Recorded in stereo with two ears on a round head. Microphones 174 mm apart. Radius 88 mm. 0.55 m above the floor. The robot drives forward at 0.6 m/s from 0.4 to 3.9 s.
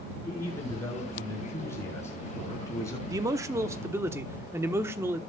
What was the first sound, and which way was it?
A man speaking, 10° left (ahead or behind).